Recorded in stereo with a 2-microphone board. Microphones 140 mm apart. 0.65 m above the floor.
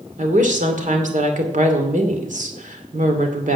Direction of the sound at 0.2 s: 65° right (ahead or behind).